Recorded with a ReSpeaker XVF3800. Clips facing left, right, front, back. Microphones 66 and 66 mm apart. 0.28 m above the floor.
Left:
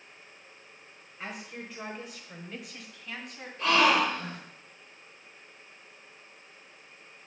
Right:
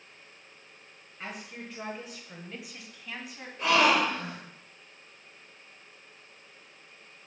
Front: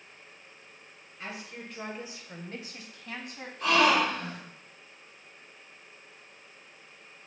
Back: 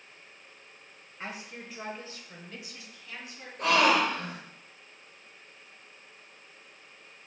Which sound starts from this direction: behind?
A woman speaking, at 1.2 s.